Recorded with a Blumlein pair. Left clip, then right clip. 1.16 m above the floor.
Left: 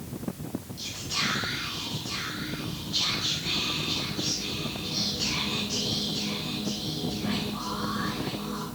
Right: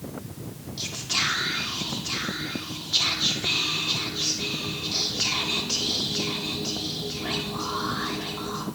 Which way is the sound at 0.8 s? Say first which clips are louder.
Right 4 dB; 65° right.